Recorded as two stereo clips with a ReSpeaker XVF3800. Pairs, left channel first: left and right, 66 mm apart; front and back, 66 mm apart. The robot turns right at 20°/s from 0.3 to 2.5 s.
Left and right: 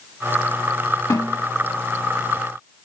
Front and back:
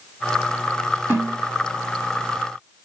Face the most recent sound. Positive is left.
turn(degrees=145)